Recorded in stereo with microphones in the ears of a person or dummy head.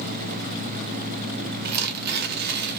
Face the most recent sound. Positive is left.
turn(degrees=-55)  # may be behind; listen again after turning